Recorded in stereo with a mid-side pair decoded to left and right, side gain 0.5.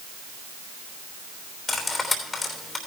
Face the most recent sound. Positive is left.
turn(degrees=30)